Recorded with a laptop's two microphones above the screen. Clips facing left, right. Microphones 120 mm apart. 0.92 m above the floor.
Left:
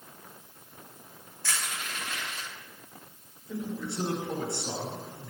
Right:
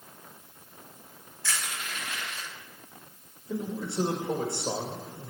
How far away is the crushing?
About 4 m.